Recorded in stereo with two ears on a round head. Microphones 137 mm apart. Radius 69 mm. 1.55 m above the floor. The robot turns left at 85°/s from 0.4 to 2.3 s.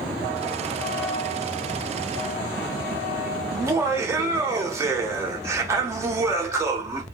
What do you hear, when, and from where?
3.5 s laughter: 20° right (ahead or behind), 0.7 m